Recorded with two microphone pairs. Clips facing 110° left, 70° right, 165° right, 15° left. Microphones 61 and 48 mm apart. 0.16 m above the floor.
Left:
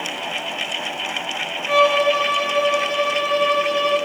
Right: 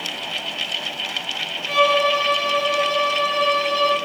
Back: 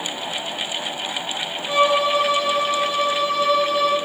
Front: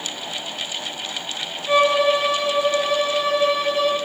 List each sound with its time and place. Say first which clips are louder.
1.7 s a violin: left 1 dB, front 1 dB; 45° left, 1.8 m